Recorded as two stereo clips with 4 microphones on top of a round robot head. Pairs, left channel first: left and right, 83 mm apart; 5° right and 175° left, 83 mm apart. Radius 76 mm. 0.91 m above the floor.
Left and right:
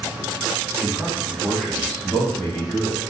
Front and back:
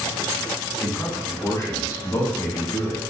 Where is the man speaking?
35° right, 0.9 m; by 3.0 s 30° left, 1.4 m.